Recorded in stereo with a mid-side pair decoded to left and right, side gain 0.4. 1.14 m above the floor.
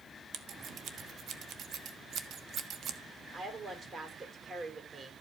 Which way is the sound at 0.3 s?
65° right.